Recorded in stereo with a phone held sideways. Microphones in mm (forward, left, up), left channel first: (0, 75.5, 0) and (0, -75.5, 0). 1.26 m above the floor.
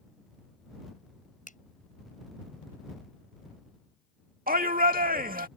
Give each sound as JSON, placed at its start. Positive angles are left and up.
{"t": 1.5, "sound": "a finger snap", "side_deg": 60}
{"t": 4.5, "sound": "a shout", "side_deg": -70}